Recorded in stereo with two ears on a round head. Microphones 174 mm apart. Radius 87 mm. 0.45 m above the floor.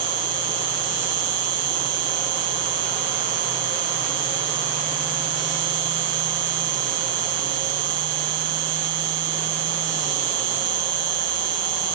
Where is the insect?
70° right (ahead or behind).